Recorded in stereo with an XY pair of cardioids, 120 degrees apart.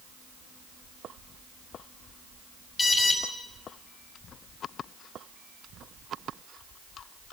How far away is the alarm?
About 7 m.